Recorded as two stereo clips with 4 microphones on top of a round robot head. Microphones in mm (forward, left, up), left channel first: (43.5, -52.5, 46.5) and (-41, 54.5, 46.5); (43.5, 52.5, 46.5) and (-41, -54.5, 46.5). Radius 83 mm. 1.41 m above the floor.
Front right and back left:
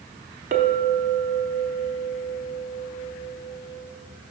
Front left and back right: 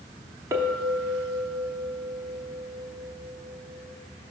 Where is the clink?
160° left, 0.6 m.